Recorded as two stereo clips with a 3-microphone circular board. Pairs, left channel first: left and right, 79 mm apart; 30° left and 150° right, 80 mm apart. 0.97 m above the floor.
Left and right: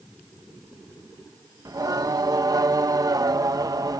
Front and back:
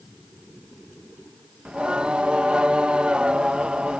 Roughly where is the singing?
Right.